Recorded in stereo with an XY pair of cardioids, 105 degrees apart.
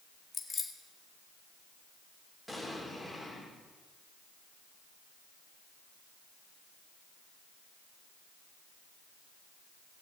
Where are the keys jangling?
30° left, 1.6 m.